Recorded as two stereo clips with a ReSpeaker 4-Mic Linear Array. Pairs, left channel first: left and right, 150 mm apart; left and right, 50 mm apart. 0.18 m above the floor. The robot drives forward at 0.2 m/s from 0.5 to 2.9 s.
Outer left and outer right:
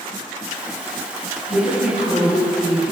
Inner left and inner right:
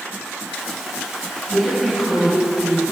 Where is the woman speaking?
50° left (ahead or behind), 1.9 m.